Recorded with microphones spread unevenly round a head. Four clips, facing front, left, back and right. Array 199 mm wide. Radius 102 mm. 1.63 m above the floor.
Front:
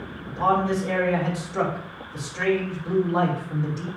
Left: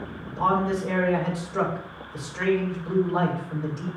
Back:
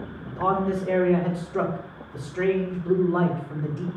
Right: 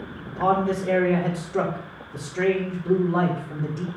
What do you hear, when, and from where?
0.3 s a man speaking: 115° right, 4.5 m